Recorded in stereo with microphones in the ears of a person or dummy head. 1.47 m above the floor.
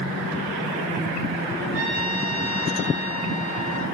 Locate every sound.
1.7 s a trumpet: 70° right (ahead or behind), 6.5 m